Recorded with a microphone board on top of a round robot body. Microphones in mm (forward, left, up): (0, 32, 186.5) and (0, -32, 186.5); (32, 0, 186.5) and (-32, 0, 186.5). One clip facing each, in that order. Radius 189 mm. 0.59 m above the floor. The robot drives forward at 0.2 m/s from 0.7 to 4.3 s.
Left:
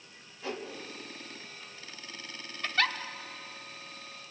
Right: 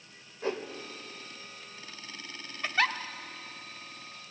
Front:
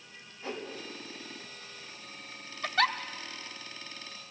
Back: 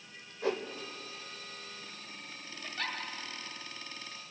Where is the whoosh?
145° right, 2 m.